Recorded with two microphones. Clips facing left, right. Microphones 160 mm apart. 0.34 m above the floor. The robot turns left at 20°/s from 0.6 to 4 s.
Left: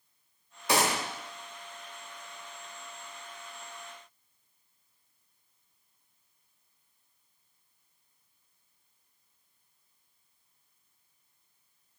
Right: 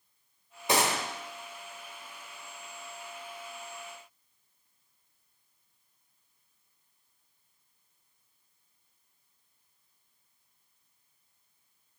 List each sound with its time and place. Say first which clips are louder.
0.7 s a gunshot: even; 20° right (ahead or behind), 1.0 m